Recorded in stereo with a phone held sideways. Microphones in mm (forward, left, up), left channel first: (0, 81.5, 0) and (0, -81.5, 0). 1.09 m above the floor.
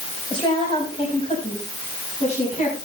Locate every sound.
0.3 s a woman speaking: 30° left (ahead or behind), 5.5 m; by 2.8 s 45° left (ahead or behind), 7.5 m